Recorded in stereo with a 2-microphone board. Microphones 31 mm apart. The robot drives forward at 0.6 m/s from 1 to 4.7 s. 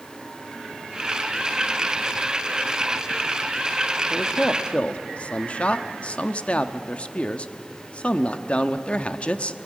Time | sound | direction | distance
4.1 | a man speaking | 35° left (ahead or behind) | 1.0 m